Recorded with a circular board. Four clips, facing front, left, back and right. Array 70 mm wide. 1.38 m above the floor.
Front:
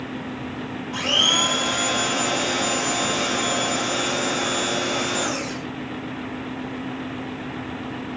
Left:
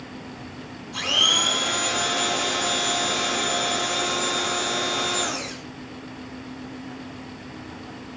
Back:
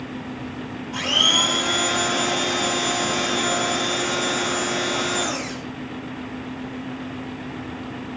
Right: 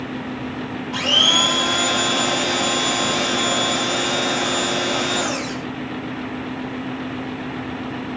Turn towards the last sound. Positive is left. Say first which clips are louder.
# right 4 dB, even
turn(degrees=-95)